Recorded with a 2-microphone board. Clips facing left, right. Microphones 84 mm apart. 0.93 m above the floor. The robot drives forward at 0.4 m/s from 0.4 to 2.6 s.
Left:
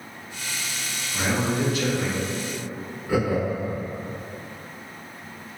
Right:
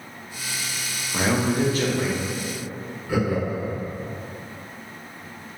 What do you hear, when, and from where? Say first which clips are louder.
1.1 s a man speaking: right 3 dB; 50° right (ahead or behind), 0.5 m; by 2.2 s 30° right (ahead or behind), 0.7 m
3.1 s laughter: left 1 dB; 25° left (ahead or behind), 1.2 m